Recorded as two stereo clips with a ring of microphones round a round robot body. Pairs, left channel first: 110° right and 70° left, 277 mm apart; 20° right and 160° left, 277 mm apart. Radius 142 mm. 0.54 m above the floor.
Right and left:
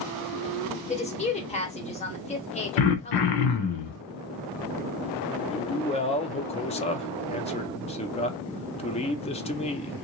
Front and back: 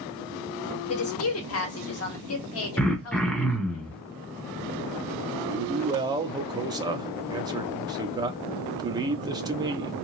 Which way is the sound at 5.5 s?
145° right.